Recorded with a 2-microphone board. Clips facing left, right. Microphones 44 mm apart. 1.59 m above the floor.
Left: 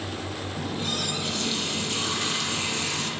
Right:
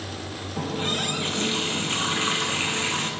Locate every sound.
0.6 s a running tap: 40° right (ahead or behind), 0.8 m